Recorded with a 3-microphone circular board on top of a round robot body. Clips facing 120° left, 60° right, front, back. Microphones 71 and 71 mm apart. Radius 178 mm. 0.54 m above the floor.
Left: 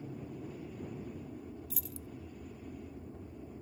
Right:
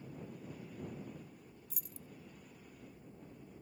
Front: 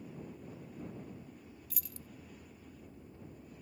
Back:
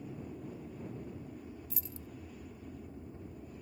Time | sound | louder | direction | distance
0.0 | an aircraft | left 5 dB, back 3 dB | 120° left | ?
1.7 | keys jangling | left 9 dB, back 5 dB | 115° left | ?